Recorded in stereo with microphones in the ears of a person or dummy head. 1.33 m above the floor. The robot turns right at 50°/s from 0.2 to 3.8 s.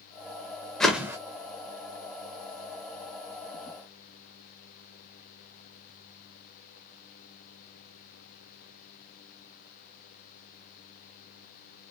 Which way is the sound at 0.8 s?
Centre (ahead or behind).